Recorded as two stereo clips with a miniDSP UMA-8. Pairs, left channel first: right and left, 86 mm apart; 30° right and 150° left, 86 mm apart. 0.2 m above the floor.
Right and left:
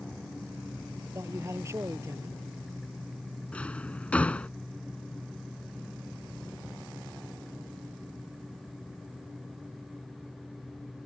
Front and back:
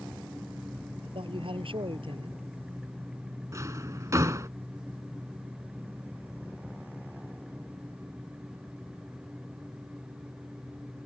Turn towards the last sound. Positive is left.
turn(degrees=-165)